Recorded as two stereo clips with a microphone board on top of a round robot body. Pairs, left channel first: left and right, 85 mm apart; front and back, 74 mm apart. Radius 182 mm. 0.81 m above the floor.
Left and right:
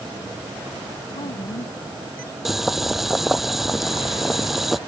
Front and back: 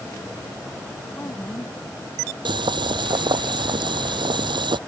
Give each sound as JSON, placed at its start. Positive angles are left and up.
{"t": 1.1, "sound": "a woman speaking", "azimuth_deg": 65}
{"t": 2.5, "sound": "boiling", "azimuth_deg": 180}